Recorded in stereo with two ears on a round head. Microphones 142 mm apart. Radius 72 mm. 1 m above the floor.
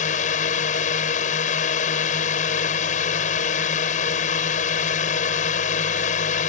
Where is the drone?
55° left (ahead or behind).